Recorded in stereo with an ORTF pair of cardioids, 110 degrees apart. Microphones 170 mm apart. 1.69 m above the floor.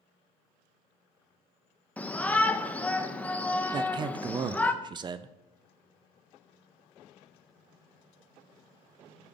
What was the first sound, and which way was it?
A shout, 10° left.